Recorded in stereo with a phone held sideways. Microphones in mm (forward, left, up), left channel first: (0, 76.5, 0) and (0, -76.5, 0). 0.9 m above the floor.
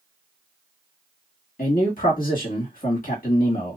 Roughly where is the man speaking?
Left.